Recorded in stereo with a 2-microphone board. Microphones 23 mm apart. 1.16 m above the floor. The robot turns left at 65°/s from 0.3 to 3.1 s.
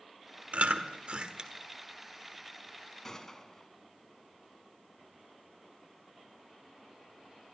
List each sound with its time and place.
0.5 s chewing: 65° right (ahead or behind), 1.4 m; by 1.5 s 30° right (ahead or behind), 1.4 m
3.0 s a gunshot: 15° left (ahead or behind), 1.6 m; by 3.7 s 20° left (ahead or behind), 1.6 m